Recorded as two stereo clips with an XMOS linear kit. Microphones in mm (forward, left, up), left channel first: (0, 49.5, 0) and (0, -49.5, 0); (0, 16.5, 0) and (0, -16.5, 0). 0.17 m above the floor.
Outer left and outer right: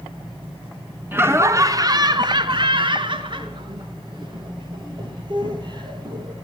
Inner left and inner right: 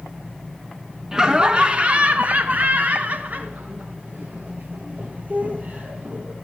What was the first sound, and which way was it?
Laughter, 20° right (ahead or behind).